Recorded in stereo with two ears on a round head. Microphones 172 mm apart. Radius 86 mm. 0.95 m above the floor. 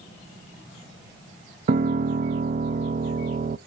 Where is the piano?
45° right (ahead or behind), 0.5 m.